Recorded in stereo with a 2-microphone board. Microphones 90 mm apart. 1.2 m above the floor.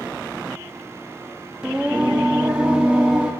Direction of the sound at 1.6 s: 10° right (ahead or behind).